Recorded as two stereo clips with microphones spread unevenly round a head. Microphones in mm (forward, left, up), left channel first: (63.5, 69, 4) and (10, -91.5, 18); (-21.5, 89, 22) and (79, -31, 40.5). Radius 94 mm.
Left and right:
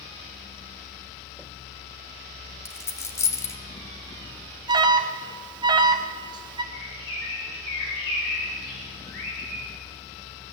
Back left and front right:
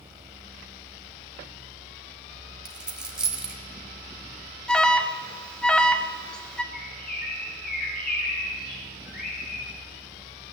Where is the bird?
100° left, 5 m.